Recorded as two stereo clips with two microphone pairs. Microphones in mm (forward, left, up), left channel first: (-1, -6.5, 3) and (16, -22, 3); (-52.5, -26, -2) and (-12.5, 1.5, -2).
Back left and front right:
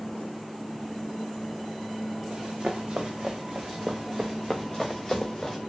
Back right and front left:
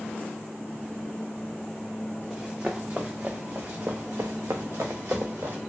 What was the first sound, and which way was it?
Running footsteps, 45° right.